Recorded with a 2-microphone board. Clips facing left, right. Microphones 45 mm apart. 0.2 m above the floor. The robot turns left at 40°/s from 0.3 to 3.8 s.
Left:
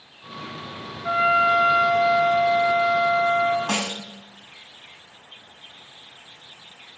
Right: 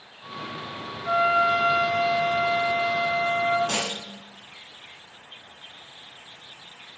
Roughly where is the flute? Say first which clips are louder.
Left 2 dB; ahead left.